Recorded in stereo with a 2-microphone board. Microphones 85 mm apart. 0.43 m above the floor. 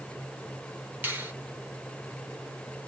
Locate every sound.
1.0 s a finger snap: 20° right (ahead or behind), 1.2 m